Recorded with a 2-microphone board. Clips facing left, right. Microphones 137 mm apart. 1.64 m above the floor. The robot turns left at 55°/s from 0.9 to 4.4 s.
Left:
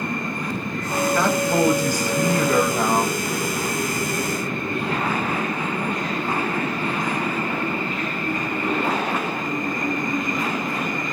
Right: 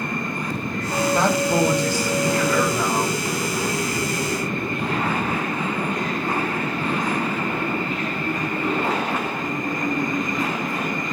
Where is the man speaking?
150° right, 1.0 m; by 3.2 s 95° left, 1.0 m.